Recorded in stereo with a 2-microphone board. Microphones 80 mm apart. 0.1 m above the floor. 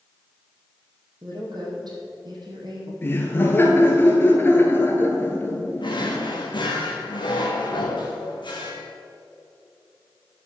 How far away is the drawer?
About 2.0 m.